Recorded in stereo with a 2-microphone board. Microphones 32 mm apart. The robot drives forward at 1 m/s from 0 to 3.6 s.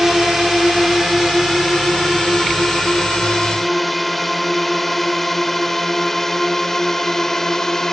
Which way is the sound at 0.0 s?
20° right (ahead or behind).